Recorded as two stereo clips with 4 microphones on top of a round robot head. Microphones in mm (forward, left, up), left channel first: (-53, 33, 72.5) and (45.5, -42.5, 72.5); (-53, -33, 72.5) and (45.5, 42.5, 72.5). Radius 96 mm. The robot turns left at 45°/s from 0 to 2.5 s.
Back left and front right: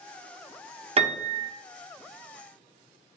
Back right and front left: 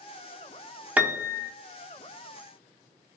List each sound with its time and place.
1.0 s a piano: 35° right, 0.6 m; by 1.5 s 60° right, 0.6 m